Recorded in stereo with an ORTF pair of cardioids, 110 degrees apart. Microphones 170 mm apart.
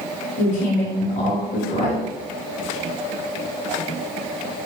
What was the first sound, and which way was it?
A woman speaking, 55° left.